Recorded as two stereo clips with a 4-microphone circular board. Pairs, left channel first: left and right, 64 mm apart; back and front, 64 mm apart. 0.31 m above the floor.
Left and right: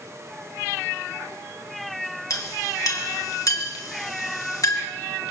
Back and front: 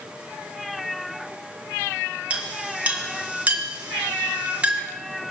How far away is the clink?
About 3.5 m.